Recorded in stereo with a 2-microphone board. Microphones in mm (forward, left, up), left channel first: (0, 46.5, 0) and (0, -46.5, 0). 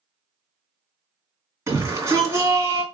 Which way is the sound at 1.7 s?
35° right (ahead or behind).